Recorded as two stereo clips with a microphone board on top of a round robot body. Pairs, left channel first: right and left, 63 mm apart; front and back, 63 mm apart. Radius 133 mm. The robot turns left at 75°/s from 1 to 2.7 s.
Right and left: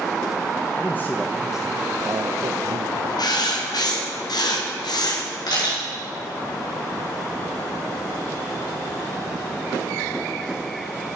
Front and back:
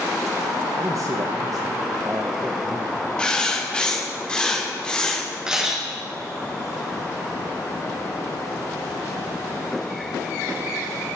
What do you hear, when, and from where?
0.8 s a man speaking: 150° right, 1.2 m; by 3.1 s 85° left, 1.2 m
3.2 s writing: 75° right, 2 m
5.5 s a camera shutter: 100° right, 5 m